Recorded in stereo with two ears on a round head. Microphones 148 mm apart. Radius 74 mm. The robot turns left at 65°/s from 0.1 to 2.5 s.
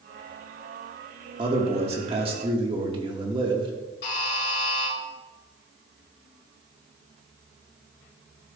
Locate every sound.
1.4 s a man speaking: 55° right, 1.4 m; by 3.7 s 125° right, 1.4 m
4.0 s a buzzer: 75° left (ahead or behind), 2.5 m